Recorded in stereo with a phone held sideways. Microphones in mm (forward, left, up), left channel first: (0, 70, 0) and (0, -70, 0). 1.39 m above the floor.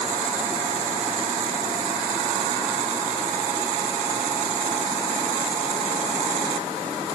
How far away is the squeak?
I don't hear a squeak.